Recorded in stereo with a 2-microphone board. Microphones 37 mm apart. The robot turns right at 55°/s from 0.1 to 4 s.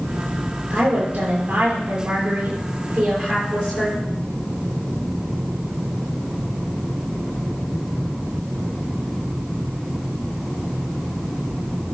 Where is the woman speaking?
135° right, 6 m; by 4.0 s 45° left, 6 m.